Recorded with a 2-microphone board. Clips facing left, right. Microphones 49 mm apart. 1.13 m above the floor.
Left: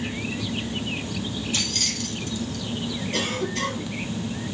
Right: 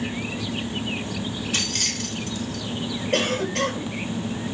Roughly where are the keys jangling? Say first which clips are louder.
Right 1 dB; right.